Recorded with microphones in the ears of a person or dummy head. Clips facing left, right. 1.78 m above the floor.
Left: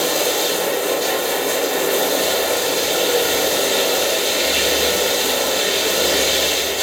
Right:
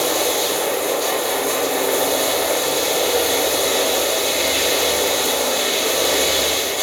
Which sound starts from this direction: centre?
Running water, at 0.0 s.